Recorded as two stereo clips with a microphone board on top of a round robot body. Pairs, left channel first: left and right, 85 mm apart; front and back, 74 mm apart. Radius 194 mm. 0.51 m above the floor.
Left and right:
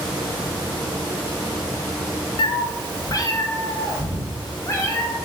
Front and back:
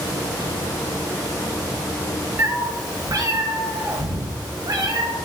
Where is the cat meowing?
120° left, 0.6 m; by 5.2 s 150° left, 2 m.